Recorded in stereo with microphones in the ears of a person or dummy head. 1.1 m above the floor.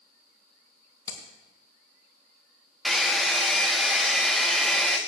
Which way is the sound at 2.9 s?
5° right (ahead or behind).